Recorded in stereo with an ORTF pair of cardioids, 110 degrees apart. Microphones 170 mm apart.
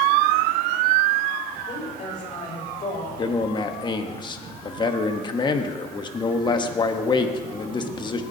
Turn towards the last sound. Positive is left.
turn(degrees=25)